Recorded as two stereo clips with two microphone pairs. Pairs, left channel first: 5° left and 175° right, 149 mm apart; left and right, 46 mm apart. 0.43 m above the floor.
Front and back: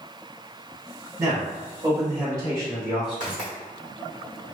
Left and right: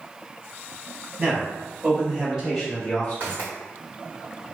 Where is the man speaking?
115° right, 1.6 m; by 3.4 s 125° left, 1.3 m.